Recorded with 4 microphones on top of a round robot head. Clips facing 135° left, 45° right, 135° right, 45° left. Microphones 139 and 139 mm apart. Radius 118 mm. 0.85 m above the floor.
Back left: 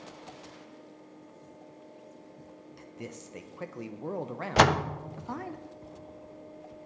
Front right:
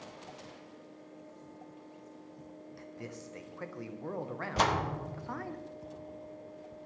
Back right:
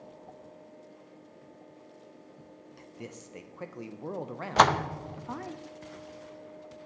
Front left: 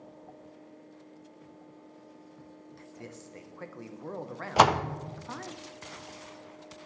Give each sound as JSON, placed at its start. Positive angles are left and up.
{"t": 2.8, "sound": "a man speaking", "azimuth_deg": 175, "distance_m": 0.7}
{"t": 4.6, "sound": "a door slam", "azimuth_deg": 125, "distance_m": 0.6}